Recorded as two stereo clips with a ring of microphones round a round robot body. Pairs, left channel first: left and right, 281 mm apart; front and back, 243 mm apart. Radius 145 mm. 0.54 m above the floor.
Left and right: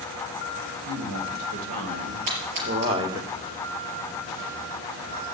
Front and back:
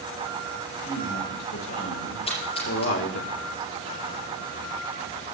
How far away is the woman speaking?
About 3.5 m.